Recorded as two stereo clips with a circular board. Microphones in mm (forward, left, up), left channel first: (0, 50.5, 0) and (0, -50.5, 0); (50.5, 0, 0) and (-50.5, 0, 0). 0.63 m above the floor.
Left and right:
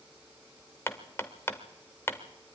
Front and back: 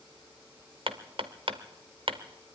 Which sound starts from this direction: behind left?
Hammering, at 0.9 s.